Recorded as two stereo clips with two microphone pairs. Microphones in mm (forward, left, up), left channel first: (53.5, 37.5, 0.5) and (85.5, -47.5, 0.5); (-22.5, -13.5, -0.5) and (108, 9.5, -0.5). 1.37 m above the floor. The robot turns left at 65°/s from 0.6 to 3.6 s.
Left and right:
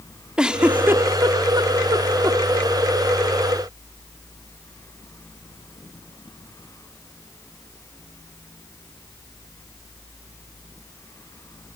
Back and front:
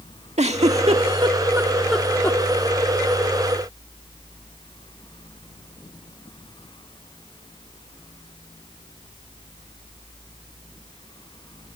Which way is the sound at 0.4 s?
10° left.